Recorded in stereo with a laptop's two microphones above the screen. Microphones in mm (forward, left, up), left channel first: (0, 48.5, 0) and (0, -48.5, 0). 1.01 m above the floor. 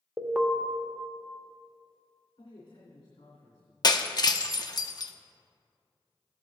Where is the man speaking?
70° left (ahead or behind), 3 m.